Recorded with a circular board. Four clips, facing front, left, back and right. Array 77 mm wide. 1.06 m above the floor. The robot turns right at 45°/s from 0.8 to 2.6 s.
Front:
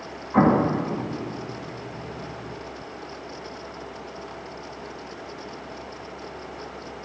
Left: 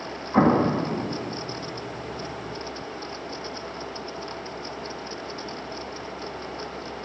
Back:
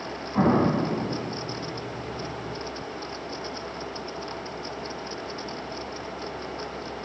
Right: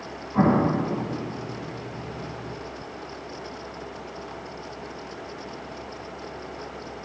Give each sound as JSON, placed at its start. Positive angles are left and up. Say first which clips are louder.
{"t": 0.3, "sound": "an explosion", "louder": "left 1 dB, front 3 dB", "azimuth_deg": 45, "distance_m": 1.2}